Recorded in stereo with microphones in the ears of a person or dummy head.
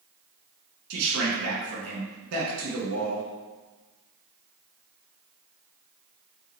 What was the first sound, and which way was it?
A man speaking, 75° right (ahead or behind).